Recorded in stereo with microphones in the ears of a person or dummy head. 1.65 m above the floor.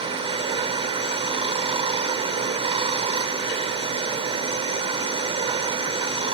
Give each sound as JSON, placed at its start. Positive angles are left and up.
{"t": 0.0, "sound": "running water", "side_deg": -35}